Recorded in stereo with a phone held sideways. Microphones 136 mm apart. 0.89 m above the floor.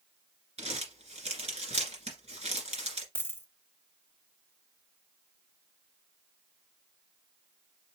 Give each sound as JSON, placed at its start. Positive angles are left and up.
{"t": 0.6, "sound": "crumpling", "side_deg": -55, "distance_m": 2.0}
{"t": 3.1, "sound": "a dropped coin", "side_deg": 15, "distance_m": 0.7}